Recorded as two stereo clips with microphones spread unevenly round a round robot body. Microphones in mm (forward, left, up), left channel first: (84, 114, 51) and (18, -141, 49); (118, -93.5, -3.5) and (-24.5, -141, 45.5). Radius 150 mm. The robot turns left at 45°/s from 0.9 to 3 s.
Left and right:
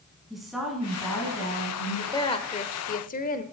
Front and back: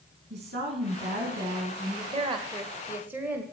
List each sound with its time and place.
0.3 s a woman speaking: 165° left, 3 m; by 2.0 s 115° left, 3 m
2.1 s a woman speaking: 140° left, 1.1 m; by 3.4 s 100° left, 1.1 m